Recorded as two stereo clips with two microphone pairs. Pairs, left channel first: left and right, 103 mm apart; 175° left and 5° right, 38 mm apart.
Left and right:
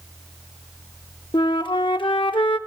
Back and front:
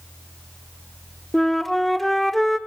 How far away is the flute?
About 0.7 m.